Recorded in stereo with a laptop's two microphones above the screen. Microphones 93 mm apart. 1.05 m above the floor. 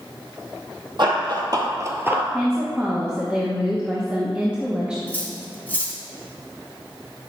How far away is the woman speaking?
About 1.1 m.